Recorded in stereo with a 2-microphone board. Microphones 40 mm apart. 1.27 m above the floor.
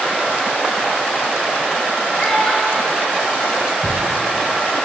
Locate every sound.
2.2 s a child speaking: 20° left (ahead or behind), 3 m
3.8 s a thud: 15° right (ahead or behind), 1.2 m